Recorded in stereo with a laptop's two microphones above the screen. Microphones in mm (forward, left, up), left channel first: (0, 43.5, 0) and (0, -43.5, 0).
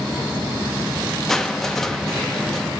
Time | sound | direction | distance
1.3 | crushing | 5° left (ahead or behind) | 0.7 m